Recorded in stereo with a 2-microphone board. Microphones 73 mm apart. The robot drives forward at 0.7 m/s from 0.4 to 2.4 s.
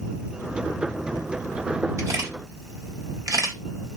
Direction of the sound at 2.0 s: 45° right (ahead or behind).